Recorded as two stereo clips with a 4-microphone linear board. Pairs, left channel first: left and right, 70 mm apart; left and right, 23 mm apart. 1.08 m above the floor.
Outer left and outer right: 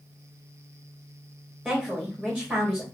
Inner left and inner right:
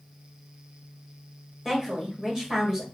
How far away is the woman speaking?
About 1.6 m.